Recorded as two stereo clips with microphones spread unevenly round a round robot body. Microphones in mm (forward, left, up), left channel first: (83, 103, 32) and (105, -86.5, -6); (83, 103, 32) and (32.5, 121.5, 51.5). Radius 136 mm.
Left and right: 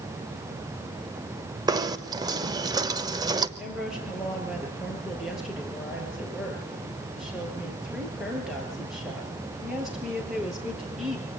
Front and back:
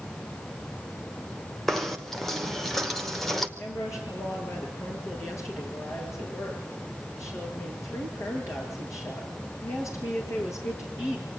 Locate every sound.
1.7 s knocking: 65° right, 1.1 m
3.6 s a woman speaking: 5° left, 7.5 m